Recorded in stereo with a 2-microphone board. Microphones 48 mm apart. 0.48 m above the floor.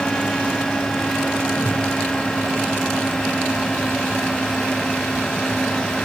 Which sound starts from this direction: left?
A whoosh, at 1.5 s.